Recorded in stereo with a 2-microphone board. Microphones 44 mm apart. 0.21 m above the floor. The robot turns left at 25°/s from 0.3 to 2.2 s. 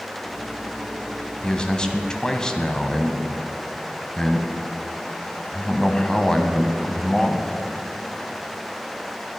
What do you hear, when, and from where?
1.4 s a man speaking: 20° left (ahead or behind), 1.2 m; by 7.5 s 15° left (ahead or behind), 1.2 m